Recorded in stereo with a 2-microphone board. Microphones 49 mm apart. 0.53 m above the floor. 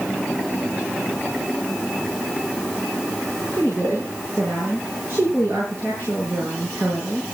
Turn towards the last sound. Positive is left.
turn(degrees=-45)  # may be behind; listen again after turning